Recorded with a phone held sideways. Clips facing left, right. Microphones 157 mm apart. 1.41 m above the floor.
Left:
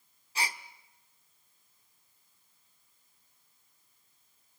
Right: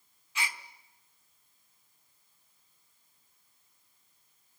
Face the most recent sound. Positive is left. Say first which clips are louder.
# left 2 dB
turn(degrees=35)  # may be behind; listen again after turning